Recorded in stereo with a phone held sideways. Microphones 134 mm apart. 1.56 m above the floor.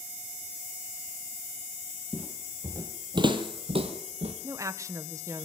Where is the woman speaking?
25° right (ahead or behind), 1.2 m.